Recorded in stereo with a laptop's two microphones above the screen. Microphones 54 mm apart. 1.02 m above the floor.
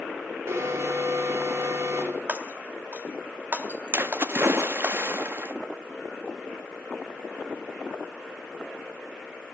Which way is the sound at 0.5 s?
60° right (ahead or behind).